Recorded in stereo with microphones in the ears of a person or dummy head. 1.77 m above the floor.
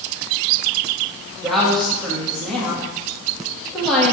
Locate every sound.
1.4 s a woman speaking: 5° left (ahead or behind), 1.5 m